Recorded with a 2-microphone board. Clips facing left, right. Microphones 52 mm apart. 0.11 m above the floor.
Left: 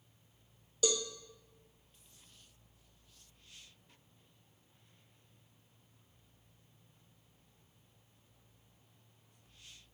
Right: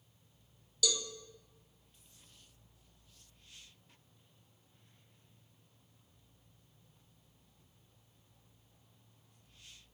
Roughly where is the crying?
No crying in this recording.